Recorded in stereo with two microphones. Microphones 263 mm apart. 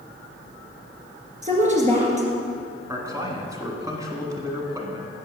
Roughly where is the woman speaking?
Right.